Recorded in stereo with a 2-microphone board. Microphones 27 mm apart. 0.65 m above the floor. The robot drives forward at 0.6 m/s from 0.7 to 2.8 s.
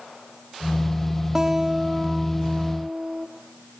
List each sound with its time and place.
1.4 s a guitar: 20° right (ahead or behind), 0.7 m